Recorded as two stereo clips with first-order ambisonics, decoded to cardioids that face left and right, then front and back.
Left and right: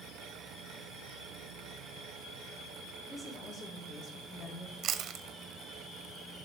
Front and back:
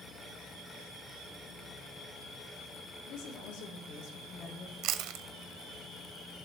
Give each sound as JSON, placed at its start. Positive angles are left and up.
{"t": 3.1, "sound": "a woman speaking", "azimuth_deg": 0, "distance_m": 1.7}
{"t": 4.8, "sound": "chewing", "azimuth_deg": -140, "distance_m": 0.6}